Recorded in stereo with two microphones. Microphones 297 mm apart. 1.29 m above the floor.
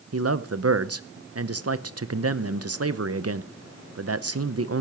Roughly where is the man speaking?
Right.